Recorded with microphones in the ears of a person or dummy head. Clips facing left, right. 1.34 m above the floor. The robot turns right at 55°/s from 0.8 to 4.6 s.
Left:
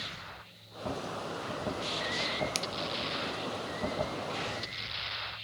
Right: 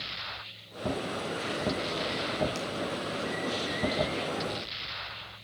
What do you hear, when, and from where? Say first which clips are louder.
2.5 s a finger snap: right 3 dB; 50° left (ahead or behind), 0.8 m; by 2.7 s 55° left (ahead or behind), 0.8 m